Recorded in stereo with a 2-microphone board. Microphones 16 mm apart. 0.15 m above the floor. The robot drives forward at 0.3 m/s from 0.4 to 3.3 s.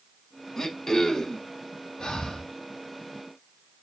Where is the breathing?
50° left (ahead or behind), 0.8 m; by 2.5 s 40° left (ahead or behind), 0.9 m.